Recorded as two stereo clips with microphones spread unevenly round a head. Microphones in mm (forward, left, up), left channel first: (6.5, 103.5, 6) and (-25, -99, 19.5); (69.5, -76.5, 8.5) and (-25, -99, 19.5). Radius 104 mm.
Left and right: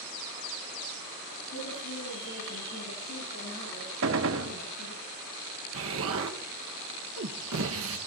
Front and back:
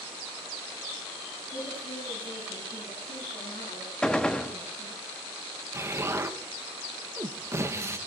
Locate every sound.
1.5 s a woman speaking: 60° left, 8.5 m; by 5.0 s 40° left, 10.5 m
4.0 s a gunshot: 70° right, 0.9 m
5.7 s an explosion: 105° right, 1.3 m